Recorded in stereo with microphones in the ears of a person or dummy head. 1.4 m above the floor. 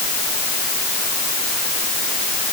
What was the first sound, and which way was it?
Only background noise.